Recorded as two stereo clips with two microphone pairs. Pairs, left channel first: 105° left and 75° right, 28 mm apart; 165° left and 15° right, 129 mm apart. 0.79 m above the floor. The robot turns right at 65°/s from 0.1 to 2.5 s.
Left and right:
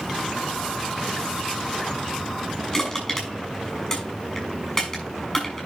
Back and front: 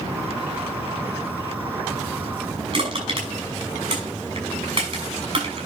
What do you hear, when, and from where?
2.7 s crushing: 35° left, 6 m